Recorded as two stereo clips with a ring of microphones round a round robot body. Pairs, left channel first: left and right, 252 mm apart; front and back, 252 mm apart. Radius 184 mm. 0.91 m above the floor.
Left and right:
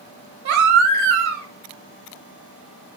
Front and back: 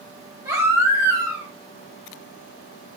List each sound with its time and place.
0.5 s a baby crying: 100° right, 1.3 m